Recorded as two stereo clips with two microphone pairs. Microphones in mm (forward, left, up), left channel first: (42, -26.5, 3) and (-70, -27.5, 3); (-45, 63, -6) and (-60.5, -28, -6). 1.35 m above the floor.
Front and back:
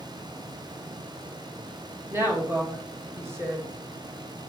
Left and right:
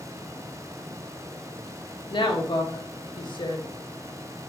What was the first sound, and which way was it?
A woman speaking, 115° left.